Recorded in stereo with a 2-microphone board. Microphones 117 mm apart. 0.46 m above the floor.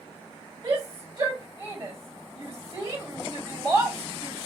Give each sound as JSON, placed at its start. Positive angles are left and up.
{"t": 0.6, "sound": "a shout", "side_deg": -45, "distance_m": 2.0}